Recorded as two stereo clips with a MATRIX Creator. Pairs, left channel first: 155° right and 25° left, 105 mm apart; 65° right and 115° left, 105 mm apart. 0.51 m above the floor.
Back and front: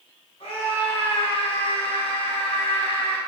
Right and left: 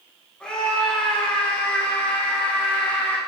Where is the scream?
150° right, 4.5 m; by 3.2 s 140° right, 3 m.